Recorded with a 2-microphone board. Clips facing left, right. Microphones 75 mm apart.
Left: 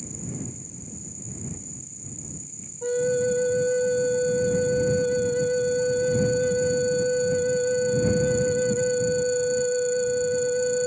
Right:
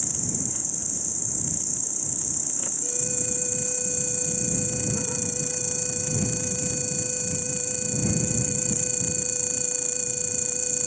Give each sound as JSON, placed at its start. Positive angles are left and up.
{"t": 0.0, "sound": "an insect", "side_deg": -80}
{"t": 2.8, "sound": "a flute", "side_deg": 50}